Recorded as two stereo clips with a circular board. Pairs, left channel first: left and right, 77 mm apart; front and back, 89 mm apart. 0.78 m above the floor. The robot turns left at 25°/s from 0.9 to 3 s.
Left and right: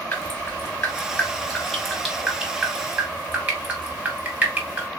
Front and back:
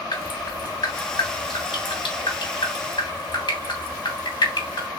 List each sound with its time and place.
0.1 s dripping: 25° left, 2 m; by 4.9 s 25° right, 2 m